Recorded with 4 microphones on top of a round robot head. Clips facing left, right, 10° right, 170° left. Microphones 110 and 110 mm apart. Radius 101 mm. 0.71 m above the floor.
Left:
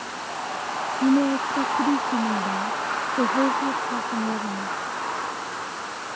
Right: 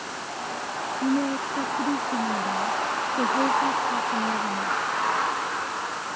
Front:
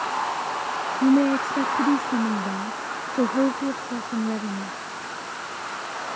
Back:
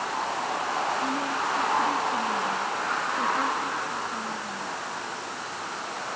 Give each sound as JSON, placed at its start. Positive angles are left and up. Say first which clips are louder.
{"t": 1.0, "sound": "a woman speaking", "louder": "left 5 dB, front 9 dB", "azimuth_deg": 20}